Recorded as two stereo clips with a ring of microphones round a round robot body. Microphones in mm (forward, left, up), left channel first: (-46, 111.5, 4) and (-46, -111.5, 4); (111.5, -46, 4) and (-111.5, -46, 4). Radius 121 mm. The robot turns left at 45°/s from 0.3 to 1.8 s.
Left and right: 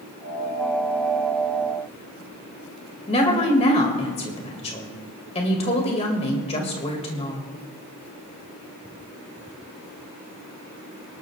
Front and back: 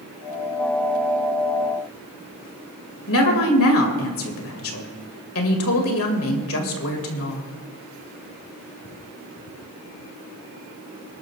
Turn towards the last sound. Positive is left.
turn(degrees=25)